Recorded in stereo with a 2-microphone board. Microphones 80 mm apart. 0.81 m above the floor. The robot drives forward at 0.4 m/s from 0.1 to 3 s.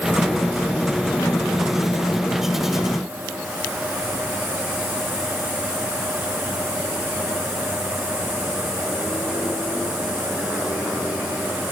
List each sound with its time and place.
Only background noise.